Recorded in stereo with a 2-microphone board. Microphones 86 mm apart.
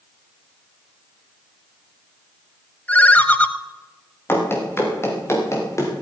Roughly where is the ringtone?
Centre.